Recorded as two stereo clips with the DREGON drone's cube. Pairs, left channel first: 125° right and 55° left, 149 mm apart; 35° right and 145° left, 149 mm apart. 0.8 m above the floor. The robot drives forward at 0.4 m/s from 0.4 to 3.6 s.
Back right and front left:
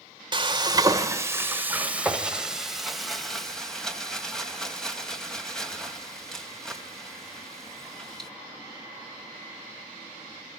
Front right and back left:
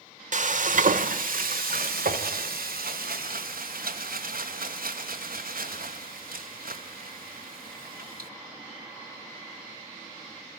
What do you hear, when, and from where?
0.3 s frying: 115° left, 1.1 m; by 8.3 s 150° left, 2 m